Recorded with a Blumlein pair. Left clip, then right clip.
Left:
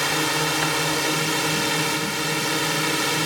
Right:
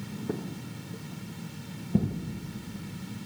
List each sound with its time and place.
0.0 s a drone: 40° left